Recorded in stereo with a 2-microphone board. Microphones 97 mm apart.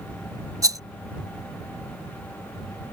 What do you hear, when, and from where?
0.6 s a rattle: 35° right (ahead or behind)